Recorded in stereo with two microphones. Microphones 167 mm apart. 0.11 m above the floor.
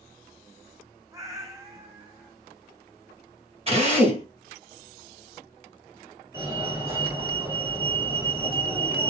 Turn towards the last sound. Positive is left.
turn(degrees=-20)  # may be behind; listen again after turning